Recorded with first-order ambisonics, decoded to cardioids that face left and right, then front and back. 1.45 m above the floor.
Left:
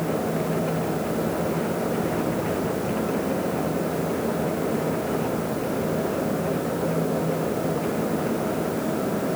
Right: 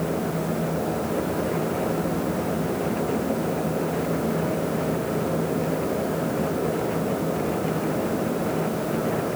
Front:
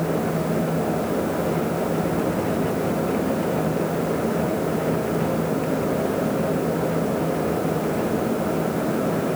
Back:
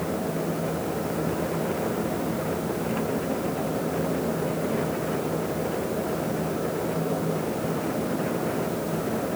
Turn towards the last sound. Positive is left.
No sound to turn to.